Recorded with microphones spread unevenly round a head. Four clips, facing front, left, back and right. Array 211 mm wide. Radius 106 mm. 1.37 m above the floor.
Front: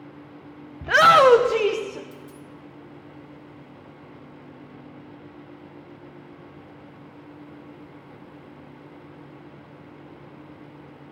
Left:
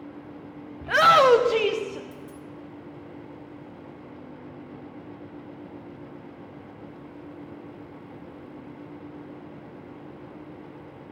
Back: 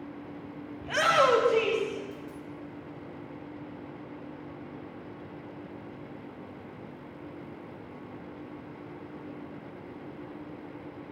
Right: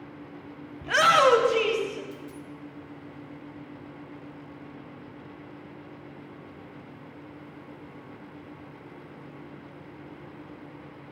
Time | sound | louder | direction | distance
0.8 | a shout | left 3 dB, front 10 dB | 10° right | 0.7 m
2.1 | a dropped coin | even, back 1 dB | 25° left | 1.9 m